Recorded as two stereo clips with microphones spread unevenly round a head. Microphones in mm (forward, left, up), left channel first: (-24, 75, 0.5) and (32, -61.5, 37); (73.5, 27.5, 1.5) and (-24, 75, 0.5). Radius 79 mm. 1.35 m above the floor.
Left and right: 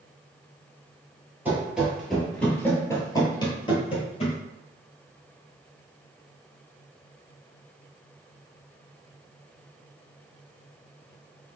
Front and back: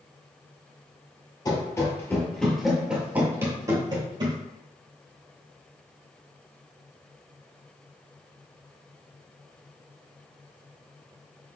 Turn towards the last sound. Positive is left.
turn(degrees=165)